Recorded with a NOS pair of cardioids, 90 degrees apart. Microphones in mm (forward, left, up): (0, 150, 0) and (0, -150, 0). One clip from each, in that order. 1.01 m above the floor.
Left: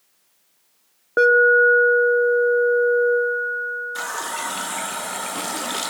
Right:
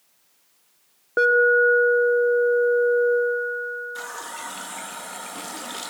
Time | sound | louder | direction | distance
1.2 | an alarm | left 3 dB | 20° left | 2 m
4.0 | a running tap | left 6 dB | 35° left | 0.6 m